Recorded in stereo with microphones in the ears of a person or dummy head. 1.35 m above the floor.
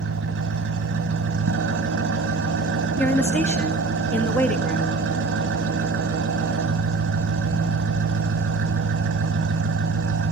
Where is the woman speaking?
10° left (ahead or behind), 1.7 m.